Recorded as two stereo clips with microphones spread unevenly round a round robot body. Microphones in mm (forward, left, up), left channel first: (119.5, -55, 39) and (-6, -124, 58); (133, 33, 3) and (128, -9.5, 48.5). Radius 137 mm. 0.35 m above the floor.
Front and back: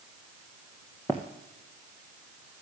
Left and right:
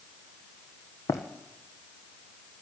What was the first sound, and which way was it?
Running footsteps, 120° left.